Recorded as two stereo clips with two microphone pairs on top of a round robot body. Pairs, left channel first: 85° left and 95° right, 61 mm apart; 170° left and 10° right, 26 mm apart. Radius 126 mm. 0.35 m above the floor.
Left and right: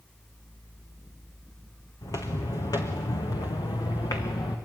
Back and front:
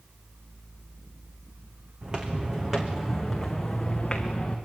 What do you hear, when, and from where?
2.0 s footsteps: 45° left, 2.5 m; by 4.6 s 105° left, 2.5 m